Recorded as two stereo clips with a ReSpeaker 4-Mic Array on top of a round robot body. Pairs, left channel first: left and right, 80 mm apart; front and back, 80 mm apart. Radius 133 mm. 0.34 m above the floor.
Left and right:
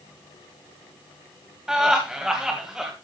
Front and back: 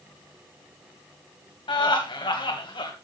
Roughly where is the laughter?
Ahead.